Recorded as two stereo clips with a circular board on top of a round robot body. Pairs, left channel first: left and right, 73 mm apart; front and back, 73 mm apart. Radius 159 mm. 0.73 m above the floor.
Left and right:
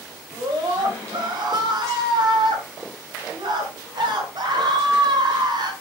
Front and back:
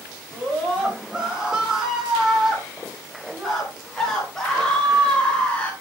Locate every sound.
0.3 s a scream: 105° right, 7 m; by 5.7 s 75° right, 5.5 m